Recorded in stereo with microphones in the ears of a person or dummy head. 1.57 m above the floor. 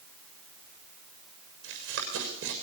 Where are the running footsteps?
65° right (ahead or behind), 7 m.